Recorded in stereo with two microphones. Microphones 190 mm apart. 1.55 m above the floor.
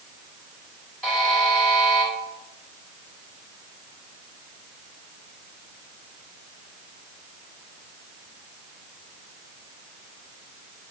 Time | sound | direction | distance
1.0 | a buzzer | centre (ahead or behind) | 3 m